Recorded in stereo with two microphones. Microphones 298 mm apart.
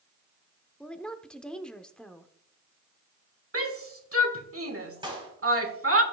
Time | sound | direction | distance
0.8 | a woman speaking | 5° left (ahead or behind) | 0.7 m
3.5 | a shout | 55° right (ahead or behind) | 1.5 m
5.0 | a clap | 15° right (ahead or behind) | 3.5 m